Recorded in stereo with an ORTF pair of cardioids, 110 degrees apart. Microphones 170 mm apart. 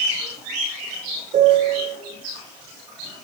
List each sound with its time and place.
1.3 s a piano: 45° right, 4.5 m